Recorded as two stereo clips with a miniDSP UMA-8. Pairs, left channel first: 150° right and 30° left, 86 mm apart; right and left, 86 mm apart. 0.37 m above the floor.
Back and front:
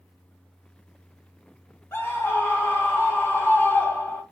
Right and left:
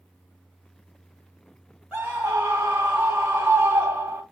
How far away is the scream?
About 1.2 m.